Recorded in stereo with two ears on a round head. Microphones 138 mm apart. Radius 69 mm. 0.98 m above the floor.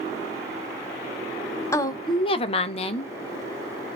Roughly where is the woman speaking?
Centre.